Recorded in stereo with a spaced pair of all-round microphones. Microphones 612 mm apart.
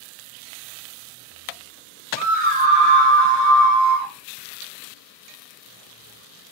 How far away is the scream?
About 1.1 m.